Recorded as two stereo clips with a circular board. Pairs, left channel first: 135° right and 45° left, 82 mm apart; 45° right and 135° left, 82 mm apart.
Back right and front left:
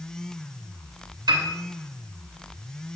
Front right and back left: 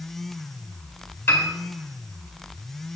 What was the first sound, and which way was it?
A piano, 15° left.